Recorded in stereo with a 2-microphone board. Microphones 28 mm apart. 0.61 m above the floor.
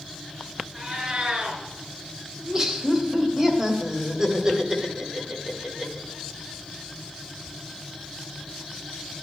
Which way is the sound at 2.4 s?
25° right (ahead or behind).